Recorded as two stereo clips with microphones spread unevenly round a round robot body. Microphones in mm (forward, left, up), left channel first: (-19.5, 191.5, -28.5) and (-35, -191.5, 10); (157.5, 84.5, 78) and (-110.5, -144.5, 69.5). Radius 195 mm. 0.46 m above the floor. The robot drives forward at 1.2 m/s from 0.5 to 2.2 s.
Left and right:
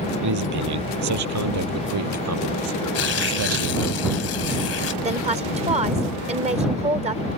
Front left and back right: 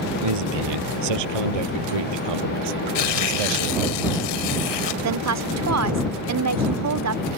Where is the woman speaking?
165° right.